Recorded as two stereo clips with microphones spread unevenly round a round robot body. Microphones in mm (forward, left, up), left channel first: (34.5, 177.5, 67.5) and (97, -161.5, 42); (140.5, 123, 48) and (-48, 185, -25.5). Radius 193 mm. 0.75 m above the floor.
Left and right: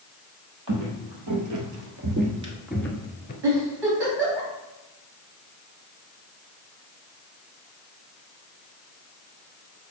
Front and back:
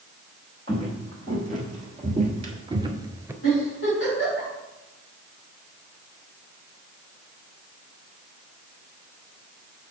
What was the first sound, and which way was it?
Footsteps, 120° right.